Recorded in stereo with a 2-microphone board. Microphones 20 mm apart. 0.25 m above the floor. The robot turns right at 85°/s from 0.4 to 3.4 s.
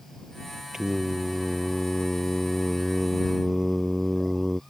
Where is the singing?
30° right; by 4.6 s 165° right.